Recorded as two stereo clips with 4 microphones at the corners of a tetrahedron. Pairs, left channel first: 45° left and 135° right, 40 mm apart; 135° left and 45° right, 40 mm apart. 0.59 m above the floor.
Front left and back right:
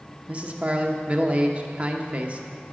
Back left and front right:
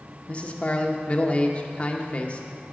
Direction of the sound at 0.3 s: 175° left.